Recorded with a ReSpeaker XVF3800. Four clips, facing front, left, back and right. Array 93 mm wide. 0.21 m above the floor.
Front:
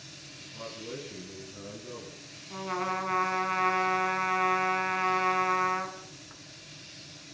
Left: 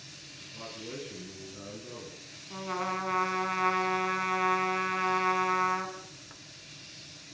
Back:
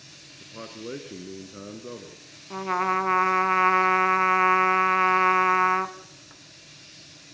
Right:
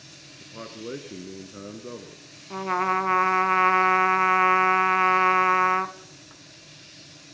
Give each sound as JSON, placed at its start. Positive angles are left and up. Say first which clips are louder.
{"t": 0.4, "sound": "a man speaking", "louder": "right 6 dB, back 4 dB", "azimuth_deg": -130, "distance_m": 3.0}
{"t": 2.5, "sound": "a trumpet", "louder": "right 9 dB, back 7 dB", "azimuth_deg": -130, "distance_m": 1.2}